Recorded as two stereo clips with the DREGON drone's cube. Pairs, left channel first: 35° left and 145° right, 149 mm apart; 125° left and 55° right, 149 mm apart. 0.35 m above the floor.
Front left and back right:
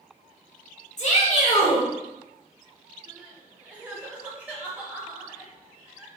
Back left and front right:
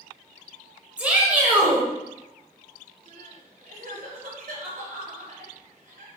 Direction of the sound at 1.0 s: 20° left.